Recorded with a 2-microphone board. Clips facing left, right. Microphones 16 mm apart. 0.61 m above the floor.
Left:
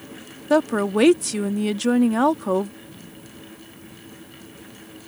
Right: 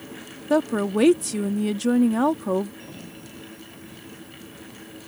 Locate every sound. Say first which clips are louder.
0.5 s a woman speaking: left 2 dB; 20° left (ahead or behind)
2.8 s a sliding door: right 2 dB; 70° right (ahead or behind)